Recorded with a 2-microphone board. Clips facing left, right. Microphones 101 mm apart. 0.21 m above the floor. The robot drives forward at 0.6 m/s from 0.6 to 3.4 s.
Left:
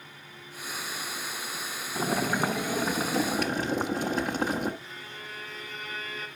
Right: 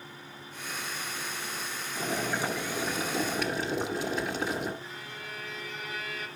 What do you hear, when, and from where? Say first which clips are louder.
1.9 s boiling: left 4 dB; 55° left (ahead or behind), 1.4 m; by 4.7 s 45° left (ahead or behind), 1.6 m
4.8 s a violin: right 1 dB; 35° left (ahead or behind), 3 m